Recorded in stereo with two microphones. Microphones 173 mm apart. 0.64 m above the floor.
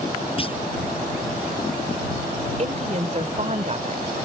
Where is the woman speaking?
45° right (ahead or behind).